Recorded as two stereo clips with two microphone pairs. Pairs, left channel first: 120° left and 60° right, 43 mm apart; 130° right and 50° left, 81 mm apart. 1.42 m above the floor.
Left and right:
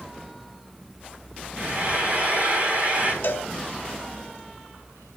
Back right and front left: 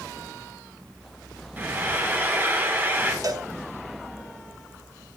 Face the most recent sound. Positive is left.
turn(degrees=85)